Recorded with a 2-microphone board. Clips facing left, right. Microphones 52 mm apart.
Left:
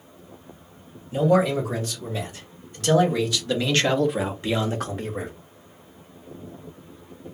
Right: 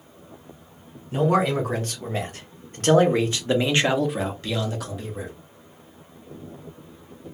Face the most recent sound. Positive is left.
turn(degrees=55)  # may be behind; listen again after turning